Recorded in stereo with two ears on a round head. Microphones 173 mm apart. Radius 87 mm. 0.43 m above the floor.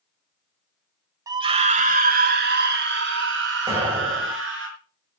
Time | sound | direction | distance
1.3 | a scream | 20° right (ahead or behind) | 1.5 m
3.7 | an explosion | 30° right (ahead or behind) | 9 m